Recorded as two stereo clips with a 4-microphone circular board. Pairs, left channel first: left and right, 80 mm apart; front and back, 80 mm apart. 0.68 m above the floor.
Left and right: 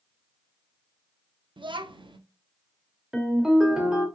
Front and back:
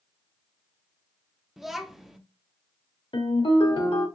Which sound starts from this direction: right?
A child speaking, at 1.6 s.